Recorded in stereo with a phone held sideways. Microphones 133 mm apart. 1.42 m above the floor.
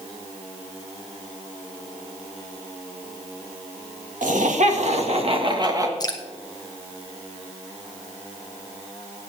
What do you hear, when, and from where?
4.2 s laughter: 75° right (ahead or behind), 2 m; by 5.9 s 25° right (ahead or behind), 1.9 m
6.0 s dripping: 30° left (ahead or behind), 1.1 m